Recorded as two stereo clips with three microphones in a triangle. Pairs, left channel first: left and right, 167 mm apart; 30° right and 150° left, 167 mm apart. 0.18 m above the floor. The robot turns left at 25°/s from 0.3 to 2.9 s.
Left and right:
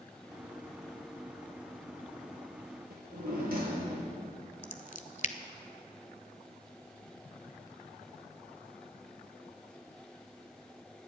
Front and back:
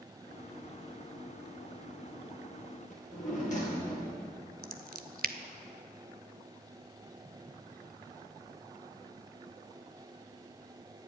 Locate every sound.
2.9 s a drawer: 70° right, 2.5 m
4.6 s scissors: 130° left, 0.6 m